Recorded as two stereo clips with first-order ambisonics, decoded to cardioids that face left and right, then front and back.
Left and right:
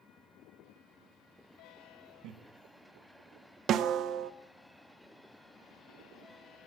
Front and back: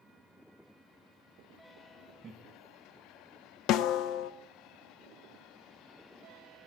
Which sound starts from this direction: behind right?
Laughter, at 2.2 s.